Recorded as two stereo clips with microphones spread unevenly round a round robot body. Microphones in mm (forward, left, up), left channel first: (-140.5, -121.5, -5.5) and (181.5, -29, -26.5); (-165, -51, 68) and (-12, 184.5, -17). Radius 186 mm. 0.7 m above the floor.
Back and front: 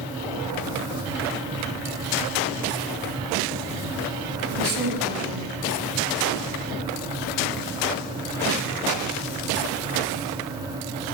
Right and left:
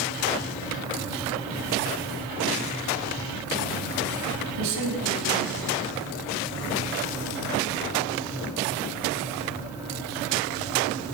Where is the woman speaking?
45° left, 5.5 m.